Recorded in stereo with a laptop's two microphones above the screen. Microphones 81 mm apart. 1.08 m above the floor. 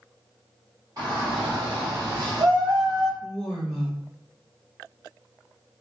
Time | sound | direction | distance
1.0 | a shout | 45° right (ahead or behind) | 1.8 m
3.2 | a woman speaking | 15° right (ahead or behind) | 1.8 m